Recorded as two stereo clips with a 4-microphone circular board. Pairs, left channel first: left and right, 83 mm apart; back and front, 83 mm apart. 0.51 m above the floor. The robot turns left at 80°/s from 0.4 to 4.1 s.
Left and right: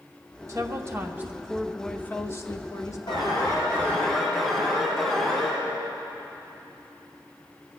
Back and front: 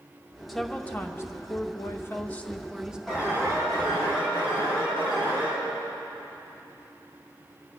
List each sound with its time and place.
0.5 s a woman speaking: 90° right, 0.9 m; by 3.0 s 70° left, 0.9 m
3.1 s an alarm: 85° left, 5.5 m; by 5.6 s straight ahead, 5.5 m